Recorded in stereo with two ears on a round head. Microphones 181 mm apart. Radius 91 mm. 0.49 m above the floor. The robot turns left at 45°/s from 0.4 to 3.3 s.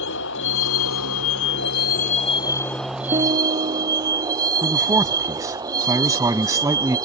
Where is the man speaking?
15° right (ahead or behind).